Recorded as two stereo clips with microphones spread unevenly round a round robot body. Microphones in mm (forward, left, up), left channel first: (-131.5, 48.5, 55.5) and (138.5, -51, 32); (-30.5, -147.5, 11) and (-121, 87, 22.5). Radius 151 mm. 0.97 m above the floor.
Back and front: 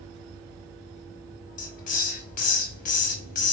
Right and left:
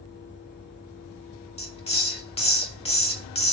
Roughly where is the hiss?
Behind right.